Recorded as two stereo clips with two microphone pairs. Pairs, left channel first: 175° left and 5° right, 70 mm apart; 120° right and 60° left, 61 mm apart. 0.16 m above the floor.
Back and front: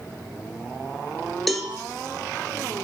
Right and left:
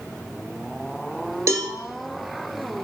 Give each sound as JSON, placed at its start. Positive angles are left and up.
{"t": 1.5, "sound": "a cowbell", "azimuth_deg": 85, "distance_m": 0.5}